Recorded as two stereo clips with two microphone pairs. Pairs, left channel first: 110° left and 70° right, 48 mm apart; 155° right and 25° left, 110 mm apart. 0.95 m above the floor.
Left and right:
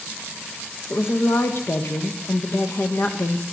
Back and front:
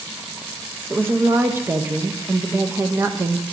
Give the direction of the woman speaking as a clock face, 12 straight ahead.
9 o'clock.